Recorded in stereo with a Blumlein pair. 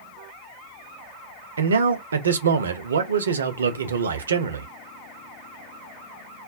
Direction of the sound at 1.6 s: 70° right.